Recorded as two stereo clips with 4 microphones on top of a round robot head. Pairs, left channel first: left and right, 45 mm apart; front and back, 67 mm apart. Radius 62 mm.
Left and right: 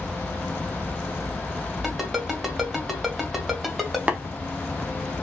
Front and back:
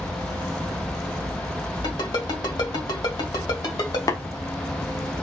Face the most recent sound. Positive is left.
turn(degrees=-35)